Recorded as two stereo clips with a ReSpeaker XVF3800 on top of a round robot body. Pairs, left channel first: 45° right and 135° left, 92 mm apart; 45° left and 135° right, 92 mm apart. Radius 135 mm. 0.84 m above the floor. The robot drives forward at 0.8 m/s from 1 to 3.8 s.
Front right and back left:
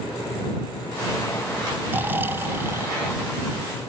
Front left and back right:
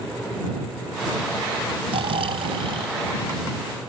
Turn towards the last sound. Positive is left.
turn(degrees=-160)